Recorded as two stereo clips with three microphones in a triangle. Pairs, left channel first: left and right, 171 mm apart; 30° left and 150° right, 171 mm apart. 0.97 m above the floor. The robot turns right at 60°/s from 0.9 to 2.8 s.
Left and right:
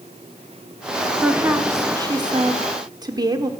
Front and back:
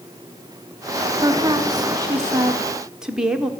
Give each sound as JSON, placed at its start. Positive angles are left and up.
{"t": 1.2, "sound": "a woman speaking", "azimuth_deg": -165, "distance_m": 0.8}